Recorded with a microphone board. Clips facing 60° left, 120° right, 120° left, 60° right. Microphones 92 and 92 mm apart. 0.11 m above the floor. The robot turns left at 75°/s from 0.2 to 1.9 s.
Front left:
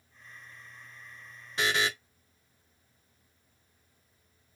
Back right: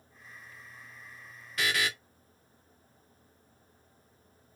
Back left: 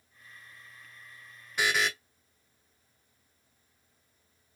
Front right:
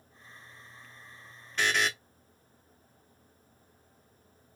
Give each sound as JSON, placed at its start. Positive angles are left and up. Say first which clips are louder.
{"t": 1.6, "sound": "a buzzer", "louder": "front left 2 dB, even", "azimuth_deg": 55, "distance_m": 0.7}